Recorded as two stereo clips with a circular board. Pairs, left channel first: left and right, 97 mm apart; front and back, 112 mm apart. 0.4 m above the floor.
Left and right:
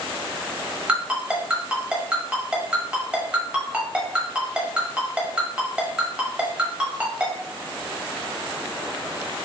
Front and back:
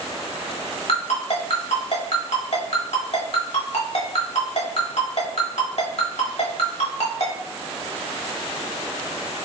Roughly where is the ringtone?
Ahead.